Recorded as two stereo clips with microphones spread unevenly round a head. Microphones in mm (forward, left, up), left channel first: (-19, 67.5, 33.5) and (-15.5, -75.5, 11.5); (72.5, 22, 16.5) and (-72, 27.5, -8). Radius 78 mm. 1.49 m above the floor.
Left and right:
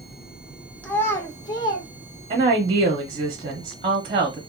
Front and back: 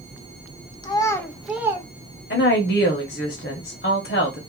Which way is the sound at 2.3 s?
30° right.